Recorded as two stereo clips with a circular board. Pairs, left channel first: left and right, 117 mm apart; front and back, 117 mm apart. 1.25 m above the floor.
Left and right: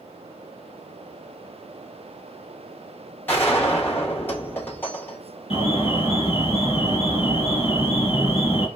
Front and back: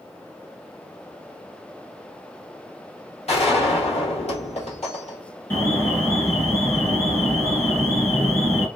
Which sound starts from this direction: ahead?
A gunshot, at 3.3 s.